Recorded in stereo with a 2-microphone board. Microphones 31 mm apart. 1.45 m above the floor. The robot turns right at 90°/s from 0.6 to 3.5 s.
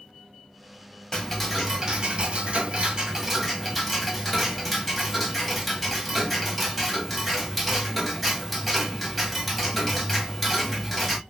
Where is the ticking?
150° left, 1.5 m; by 11.2 s straight ahead, 1.5 m.